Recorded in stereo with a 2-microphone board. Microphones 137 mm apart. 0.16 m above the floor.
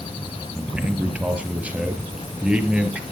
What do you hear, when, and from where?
0.6 s a man speaking: 10° right (ahead or behind), 2.5 m